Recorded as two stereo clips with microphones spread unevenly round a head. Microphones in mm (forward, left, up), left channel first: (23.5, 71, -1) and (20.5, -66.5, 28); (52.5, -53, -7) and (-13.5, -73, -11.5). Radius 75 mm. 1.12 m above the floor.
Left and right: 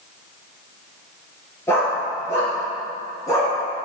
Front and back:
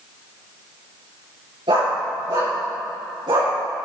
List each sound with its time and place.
1.7 s a dog barking: 165° left, 5 m; by 3.5 s 160° left, 4 m